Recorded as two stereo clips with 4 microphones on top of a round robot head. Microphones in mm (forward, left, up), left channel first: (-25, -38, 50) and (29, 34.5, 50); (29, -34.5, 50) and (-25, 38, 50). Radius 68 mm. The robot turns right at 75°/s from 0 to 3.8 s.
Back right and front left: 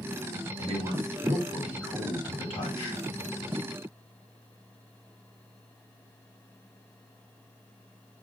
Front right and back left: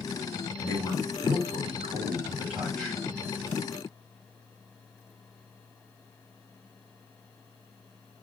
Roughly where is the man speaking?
Ahead left.